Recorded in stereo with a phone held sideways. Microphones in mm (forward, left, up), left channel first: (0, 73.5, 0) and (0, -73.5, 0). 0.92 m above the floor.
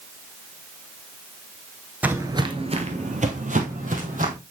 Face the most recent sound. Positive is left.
turn(degrees=-65)  # may be behind; listen again after turning